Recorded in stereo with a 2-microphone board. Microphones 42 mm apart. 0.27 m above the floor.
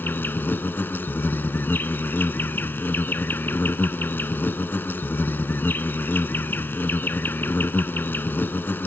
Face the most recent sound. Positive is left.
turn(degrees=55)  # may be behind; listen again after turning